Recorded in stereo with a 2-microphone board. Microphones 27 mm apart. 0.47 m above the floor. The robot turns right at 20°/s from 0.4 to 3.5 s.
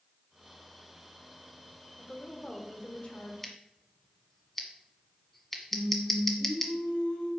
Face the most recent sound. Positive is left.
turn(degrees=75)  # may be behind; listen again after turning